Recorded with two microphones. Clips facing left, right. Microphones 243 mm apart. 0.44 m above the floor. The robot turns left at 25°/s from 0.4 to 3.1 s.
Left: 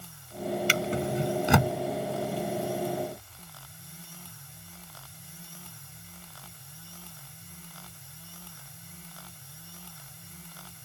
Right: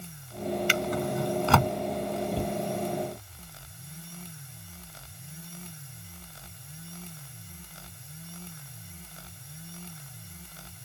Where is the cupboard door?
65° right (ahead or behind); by 2.6 s 70° right (ahead or behind).